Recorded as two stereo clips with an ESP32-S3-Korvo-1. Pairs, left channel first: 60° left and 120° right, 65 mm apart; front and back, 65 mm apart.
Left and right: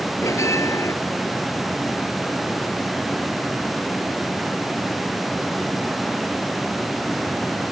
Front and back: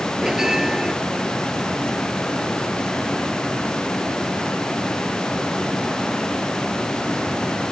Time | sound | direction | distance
0.2 | a bell | 100° left | ?